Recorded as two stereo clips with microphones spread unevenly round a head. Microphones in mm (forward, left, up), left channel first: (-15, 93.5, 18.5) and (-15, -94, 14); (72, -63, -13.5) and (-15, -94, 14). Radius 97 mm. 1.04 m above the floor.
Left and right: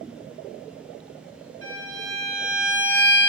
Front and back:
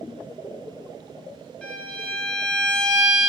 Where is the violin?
70° right, 1.2 m.